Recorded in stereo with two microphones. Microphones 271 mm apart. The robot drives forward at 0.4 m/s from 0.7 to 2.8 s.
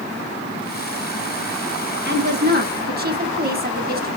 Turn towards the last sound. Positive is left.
turn(degrees=-35)  # may be behind; listen again after turning